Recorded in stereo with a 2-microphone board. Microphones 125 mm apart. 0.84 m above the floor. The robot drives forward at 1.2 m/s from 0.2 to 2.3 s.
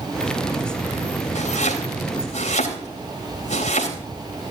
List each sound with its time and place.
1.4 s chopping: 80° left, 3.5 m; by 4.0 s 75° left (ahead or behind), 3.5 m